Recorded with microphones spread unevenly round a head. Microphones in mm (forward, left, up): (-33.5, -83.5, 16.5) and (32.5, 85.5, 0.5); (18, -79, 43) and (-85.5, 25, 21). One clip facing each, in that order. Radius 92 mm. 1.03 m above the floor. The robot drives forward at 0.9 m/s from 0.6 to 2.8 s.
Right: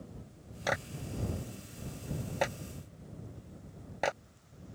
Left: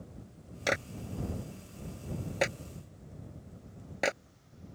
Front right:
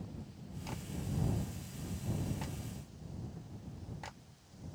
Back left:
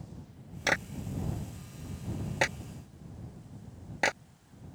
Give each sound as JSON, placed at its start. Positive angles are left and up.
{"t": 0.7, "sound": "a clap", "azimuth_deg": 125}